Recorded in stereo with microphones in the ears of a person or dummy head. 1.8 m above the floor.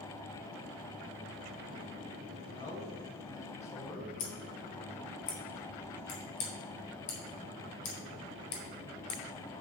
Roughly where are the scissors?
Left.